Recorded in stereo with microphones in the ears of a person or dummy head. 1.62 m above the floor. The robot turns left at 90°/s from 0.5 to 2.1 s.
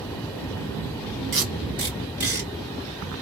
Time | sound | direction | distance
1.3 | tape being pulled | 35° right (ahead or behind) | 1.2 m